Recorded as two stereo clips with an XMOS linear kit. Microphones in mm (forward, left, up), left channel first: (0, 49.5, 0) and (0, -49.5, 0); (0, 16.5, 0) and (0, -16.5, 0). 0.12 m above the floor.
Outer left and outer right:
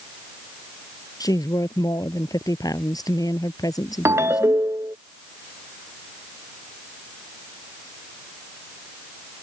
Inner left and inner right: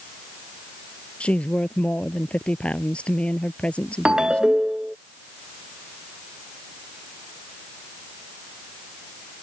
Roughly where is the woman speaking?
Left.